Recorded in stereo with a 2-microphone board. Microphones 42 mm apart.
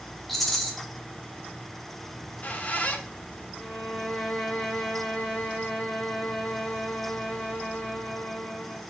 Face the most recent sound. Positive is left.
turn(degrees=0)  # may be behind; listen again after turning